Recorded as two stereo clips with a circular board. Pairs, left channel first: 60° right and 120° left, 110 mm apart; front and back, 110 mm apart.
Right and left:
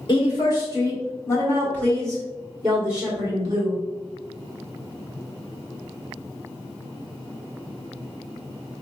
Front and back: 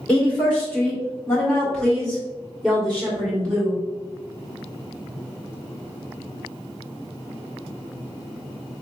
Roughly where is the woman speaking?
Right.